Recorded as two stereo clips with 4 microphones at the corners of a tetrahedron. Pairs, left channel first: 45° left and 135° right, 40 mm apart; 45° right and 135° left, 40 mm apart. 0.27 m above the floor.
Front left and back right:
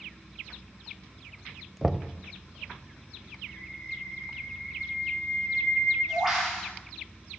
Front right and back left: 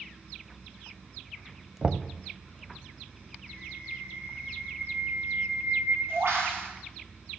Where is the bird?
135° left, 7.5 m.